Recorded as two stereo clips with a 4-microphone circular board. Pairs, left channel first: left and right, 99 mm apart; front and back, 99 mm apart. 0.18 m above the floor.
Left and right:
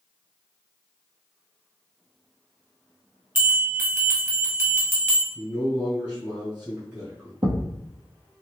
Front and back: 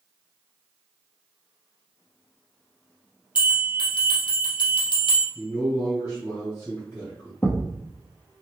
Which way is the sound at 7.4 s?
70° right.